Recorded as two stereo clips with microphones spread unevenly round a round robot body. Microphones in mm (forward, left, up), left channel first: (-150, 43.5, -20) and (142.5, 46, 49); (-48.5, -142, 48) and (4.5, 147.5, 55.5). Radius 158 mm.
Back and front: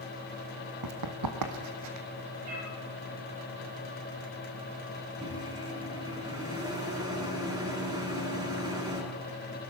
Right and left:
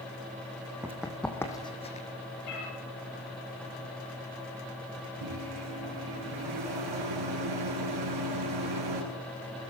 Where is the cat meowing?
65° right, 7 m.